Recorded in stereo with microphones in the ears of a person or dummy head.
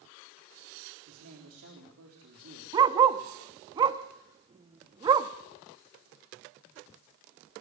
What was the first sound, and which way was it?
A man speaking, 90° right.